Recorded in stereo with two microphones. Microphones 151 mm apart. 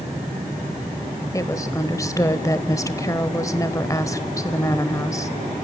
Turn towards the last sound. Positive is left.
turn(degrees=20)  # may be behind; listen again after turning